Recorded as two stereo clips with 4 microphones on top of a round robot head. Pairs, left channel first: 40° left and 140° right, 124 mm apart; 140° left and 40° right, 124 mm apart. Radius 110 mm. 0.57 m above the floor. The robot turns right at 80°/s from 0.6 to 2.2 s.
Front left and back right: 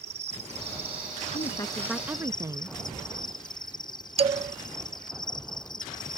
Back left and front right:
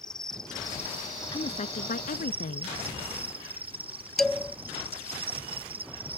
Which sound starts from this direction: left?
A woman speaking, at 1.3 s.